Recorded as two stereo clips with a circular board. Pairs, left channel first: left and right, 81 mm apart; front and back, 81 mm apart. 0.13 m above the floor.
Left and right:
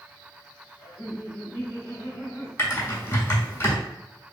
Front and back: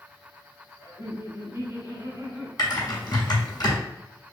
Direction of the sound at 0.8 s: 140° left.